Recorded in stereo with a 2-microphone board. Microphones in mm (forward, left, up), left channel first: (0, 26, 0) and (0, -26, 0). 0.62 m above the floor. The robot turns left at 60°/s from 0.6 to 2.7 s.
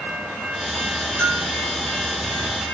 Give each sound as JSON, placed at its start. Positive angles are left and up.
{"t": 1.2, "sound": "a bell", "side_deg": 20, "distance_m": 2.0}